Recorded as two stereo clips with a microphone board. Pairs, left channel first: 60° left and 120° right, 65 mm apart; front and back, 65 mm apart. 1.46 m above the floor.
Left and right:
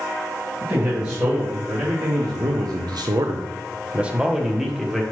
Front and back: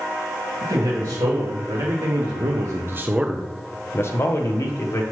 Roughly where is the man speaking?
Behind.